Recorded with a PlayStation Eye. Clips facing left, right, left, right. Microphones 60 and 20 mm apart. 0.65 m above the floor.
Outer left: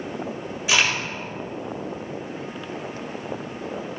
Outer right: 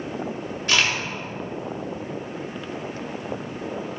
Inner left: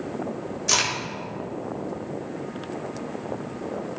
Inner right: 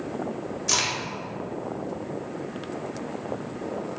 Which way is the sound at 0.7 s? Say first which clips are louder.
Outer left 1 dB, inner left 2 dB; 5° left (ahead or behind).